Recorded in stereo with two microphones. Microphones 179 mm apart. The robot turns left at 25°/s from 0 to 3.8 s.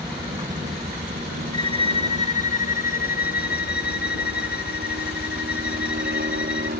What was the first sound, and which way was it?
A helicopter, 15° right (ahead or behind).